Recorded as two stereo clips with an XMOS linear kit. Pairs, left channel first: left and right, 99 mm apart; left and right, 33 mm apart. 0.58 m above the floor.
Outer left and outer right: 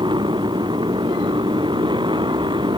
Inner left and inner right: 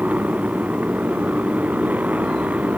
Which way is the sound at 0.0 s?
50° right (ahead or behind).